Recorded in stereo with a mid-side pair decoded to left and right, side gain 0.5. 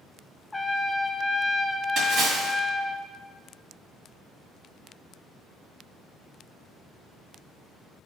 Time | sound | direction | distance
0.5 | a trumpet | 10° left | 0.5 m
2.0 | a splash | 65° right | 2.0 m